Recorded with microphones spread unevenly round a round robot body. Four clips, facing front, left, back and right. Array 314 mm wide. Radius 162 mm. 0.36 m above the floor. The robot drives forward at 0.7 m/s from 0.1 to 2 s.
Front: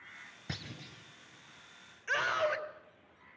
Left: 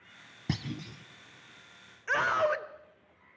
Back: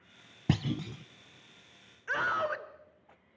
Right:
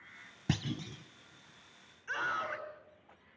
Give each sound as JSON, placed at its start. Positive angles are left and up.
{"t": 0.5, "sound": "a clunk", "azimuth_deg": 180, "distance_m": 0.6}
{"t": 2.1, "sound": "a scream", "azimuth_deg": 100, "distance_m": 1.7}